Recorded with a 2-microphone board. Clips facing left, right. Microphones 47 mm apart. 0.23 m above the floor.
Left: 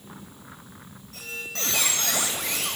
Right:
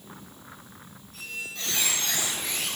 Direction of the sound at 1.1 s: 80° left.